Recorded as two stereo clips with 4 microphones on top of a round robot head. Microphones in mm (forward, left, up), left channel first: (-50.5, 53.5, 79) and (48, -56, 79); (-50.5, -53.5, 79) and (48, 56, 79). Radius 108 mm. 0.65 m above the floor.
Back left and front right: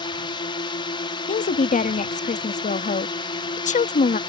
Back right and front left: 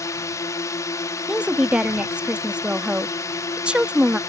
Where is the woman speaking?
130° left.